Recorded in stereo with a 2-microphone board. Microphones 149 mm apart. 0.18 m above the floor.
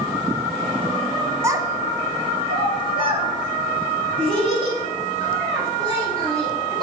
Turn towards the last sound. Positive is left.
turn(degrees=-35)  # may be behind; listen again after turning